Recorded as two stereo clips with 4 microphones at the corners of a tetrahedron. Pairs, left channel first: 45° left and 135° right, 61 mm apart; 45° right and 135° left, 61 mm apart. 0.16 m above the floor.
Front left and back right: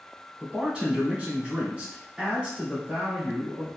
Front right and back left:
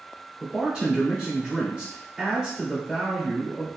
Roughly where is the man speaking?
Behind.